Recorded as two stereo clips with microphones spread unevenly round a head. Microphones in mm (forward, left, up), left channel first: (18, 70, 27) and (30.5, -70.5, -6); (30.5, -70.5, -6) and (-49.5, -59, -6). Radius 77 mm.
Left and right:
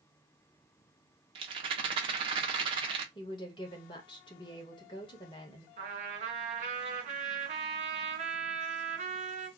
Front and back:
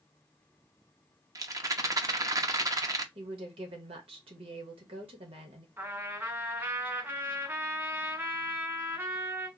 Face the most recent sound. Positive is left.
turn(degrees=-135)